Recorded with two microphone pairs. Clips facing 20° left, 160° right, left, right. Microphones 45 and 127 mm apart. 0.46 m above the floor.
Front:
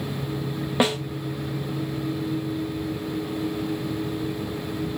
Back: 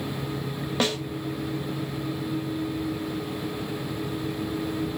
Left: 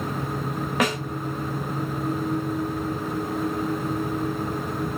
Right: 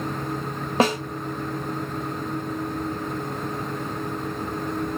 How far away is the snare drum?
About 1.6 m.